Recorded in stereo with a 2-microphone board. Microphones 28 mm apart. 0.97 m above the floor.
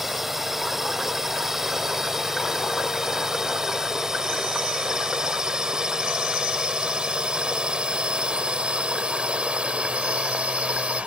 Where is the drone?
10° right (ahead or behind); by 11.1 s 45° right (ahead or behind).